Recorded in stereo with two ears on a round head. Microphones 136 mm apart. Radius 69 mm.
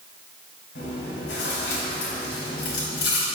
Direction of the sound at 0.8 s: 75° left (ahead or behind).